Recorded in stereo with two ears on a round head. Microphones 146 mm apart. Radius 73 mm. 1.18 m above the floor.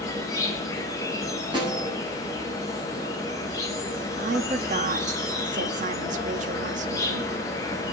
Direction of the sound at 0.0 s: 20° left (ahead or behind).